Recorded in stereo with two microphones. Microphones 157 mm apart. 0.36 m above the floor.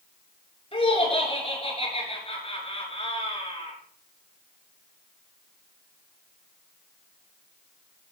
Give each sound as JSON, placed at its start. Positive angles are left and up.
{"t": 0.7, "sound": "laughter", "side_deg": 40, "distance_m": 6.0}